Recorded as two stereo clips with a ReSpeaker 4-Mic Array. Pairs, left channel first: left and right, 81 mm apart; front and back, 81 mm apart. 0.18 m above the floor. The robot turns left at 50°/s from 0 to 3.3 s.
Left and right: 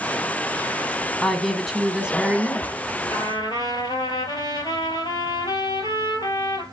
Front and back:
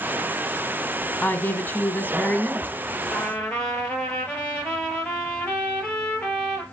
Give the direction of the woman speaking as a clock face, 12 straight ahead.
11 o'clock.